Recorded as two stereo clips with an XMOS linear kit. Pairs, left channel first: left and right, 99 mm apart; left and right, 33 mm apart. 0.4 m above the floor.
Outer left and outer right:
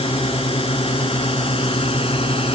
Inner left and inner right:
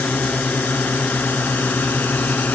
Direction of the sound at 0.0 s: 75° left (ahead or behind).